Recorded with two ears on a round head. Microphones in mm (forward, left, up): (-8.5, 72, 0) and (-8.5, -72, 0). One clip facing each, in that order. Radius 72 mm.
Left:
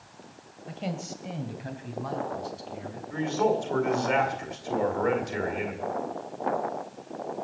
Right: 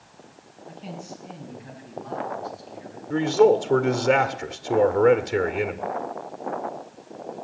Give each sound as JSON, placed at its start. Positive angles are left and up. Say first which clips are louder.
{"t": 0.7, "sound": "a man speaking", "louder": "left 3 dB", "side_deg": 75, "distance_m": 2.5}
{"t": 3.1, "sound": "a man speaking", "louder": "right 8 dB", "side_deg": -60, "distance_m": 1.7}